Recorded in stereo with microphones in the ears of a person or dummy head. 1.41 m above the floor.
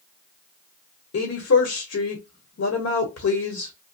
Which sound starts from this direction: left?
A woman speaking, at 1.1 s.